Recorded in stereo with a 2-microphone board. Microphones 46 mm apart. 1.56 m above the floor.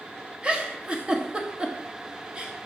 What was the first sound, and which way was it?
A giggle, 25° right (ahead or behind).